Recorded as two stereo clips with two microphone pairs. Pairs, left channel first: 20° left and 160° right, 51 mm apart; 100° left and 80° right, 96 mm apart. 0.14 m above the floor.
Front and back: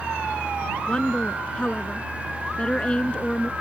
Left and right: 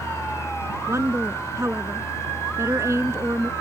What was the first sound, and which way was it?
A woman speaking, 35° right.